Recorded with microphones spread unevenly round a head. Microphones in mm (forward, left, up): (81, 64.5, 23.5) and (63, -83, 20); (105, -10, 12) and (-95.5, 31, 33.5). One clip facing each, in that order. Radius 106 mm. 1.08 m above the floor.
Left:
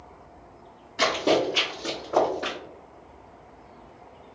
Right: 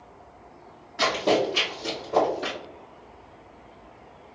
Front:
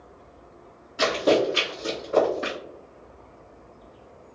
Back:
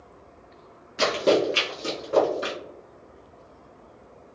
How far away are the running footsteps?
About 1.2 m.